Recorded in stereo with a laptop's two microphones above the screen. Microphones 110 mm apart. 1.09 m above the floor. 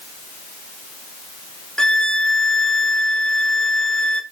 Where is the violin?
5° left (ahead or behind), 1.1 m.